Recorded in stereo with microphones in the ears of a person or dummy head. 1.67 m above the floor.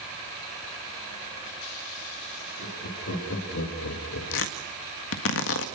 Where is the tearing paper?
65° left (ahead or behind), 1.7 m.